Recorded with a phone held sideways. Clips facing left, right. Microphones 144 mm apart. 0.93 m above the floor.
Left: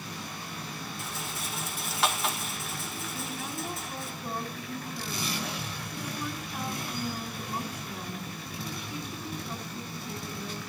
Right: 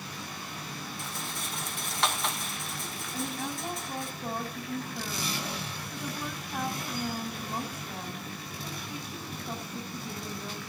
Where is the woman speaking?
50° right (ahead or behind), 5 m.